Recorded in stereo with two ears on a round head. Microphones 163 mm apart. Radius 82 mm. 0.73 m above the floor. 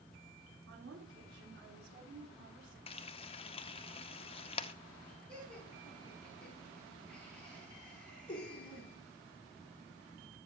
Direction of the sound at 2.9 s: 30° left (ahead or behind).